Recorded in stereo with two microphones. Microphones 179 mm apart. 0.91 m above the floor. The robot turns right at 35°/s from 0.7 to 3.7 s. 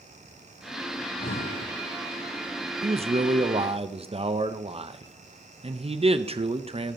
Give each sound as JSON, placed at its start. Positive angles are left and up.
{"t": 1.0, "sound": "breathing", "side_deg": 50, "distance_m": 0.9}
{"t": 2.8, "sound": "a man speaking", "azimuth_deg": -100, "distance_m": 0.6}